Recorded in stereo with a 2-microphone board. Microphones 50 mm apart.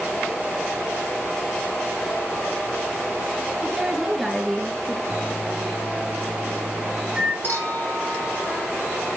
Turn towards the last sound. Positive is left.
turn(degrees=40)  # may be behind; listen again after turning